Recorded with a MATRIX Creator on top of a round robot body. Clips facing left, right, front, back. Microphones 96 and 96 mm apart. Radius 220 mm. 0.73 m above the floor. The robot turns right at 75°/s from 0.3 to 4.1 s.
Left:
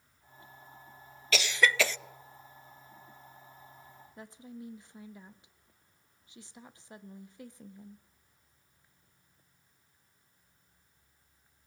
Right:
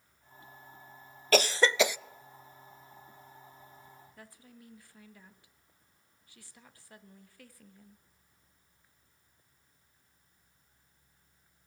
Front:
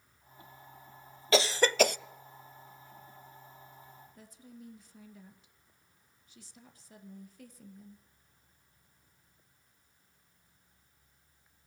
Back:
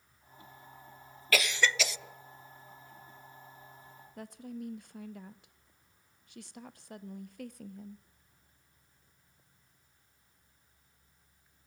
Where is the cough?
60° right, 0.7 m; by 2.0 s 10° right, 0.7 m.